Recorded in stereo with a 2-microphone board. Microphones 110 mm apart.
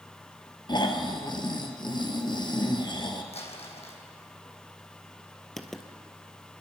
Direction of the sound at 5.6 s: 5° left (ahead or behind).